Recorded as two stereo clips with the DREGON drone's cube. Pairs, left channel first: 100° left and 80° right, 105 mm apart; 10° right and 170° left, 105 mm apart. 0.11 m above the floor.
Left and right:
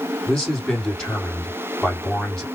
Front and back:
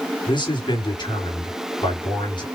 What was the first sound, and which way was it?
A man speaking, 20° left.